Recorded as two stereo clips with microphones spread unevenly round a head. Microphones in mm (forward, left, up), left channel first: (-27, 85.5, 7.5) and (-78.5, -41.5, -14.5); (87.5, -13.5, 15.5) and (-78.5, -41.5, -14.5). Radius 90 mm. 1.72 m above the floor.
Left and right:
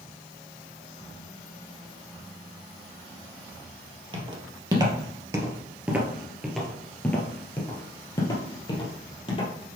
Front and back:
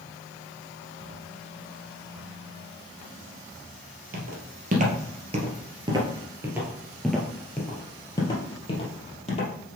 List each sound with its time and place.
4.1 s footsteps: 160° right, 2 m; by 9.5 s 35° left, 2.5 m